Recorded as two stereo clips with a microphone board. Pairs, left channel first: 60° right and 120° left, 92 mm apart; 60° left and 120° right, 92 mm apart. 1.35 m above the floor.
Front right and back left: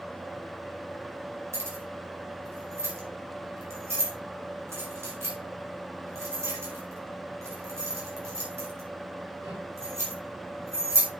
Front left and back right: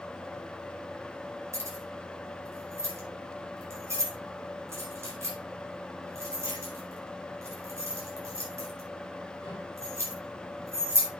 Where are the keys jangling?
Straight behind, 5 m.